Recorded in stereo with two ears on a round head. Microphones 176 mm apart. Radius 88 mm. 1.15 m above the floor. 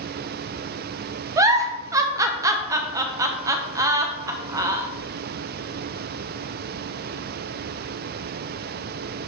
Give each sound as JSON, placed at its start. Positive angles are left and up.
{"t": 1.4, "sound": "a giggle", "side_deg": -15, "distance_m": 0.7}